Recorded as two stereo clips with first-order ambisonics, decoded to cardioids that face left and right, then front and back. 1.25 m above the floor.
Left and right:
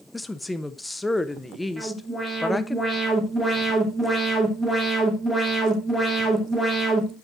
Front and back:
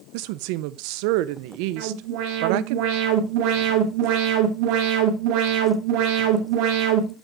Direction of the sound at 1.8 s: Straight behind.